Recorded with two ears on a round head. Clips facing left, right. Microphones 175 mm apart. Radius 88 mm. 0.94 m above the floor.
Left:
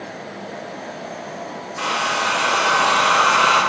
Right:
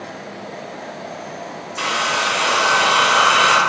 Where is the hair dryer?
35° right (ahead or behind), 1.1 m.